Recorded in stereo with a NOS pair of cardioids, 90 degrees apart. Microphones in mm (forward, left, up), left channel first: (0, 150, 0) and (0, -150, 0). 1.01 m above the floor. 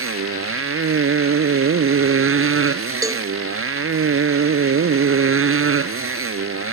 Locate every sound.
0.0 s a motorcycle: 45° right
3.0 s a cowbell: 10° right